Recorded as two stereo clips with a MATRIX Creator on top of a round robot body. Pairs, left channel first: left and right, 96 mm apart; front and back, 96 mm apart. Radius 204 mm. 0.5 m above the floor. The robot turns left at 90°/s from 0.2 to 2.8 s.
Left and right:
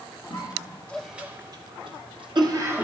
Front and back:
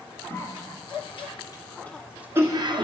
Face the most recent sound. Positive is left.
turn(degrees=-160)